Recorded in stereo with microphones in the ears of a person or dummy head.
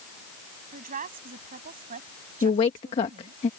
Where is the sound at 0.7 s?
40° right (ahead or behind).